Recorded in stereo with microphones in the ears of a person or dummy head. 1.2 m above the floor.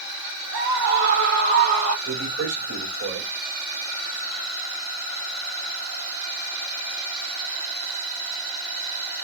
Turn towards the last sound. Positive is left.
turn(degrees=-75)  # may be behind; listen again after turning